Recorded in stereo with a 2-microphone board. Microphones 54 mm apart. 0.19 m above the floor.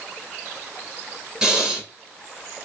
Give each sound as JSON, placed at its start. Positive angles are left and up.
{"t": 1.4, "sound": "breathing", "side_deg": -15, "distance_m": 1.7}